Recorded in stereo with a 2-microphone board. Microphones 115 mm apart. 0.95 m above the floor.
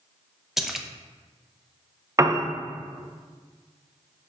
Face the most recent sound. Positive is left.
turn(degrees=-30)  # may be behind; listen again after turning